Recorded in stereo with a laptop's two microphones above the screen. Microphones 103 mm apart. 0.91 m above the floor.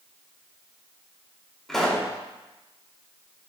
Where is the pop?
5° left (ahead or behind), 2.5 m.